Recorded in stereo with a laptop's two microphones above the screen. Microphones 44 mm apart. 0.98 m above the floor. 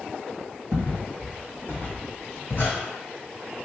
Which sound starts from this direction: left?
Footsteps, at 0.7 s.